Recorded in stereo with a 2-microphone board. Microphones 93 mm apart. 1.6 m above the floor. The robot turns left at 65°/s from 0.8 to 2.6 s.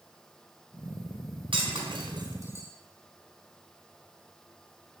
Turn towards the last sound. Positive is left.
turn(degrees=-30)  # may be behind; listen again after turning